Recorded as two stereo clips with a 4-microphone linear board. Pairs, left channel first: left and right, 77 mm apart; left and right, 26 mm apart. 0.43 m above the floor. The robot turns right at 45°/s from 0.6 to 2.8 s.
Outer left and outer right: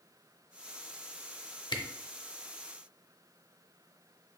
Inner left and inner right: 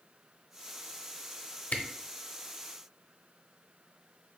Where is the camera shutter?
75° left (ahead or behind), 0.6 m; by 1.8 s 70° left (ahead or behind), 0.6 m.